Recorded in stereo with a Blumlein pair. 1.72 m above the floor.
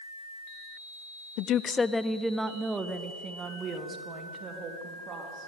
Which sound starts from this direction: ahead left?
A woman speaking, at 1.4 s.